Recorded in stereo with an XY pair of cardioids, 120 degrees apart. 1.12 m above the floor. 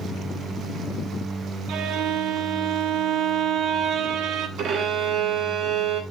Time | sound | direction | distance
1.7 | a violin | 55° right | 1.2 m
4.6 | a violin | 60° right | 2.5 m